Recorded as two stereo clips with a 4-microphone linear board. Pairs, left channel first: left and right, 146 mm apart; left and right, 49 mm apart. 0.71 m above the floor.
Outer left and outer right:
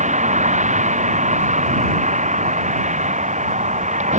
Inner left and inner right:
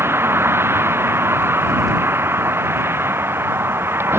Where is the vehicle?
50° right (ahead or behind).